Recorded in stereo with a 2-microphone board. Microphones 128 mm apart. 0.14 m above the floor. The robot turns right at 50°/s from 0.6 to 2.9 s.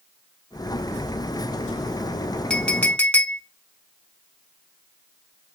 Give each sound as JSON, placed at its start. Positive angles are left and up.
{"t": 2.5, "sound": "a clink", "side_deg": 5, "distance_m": 0.7}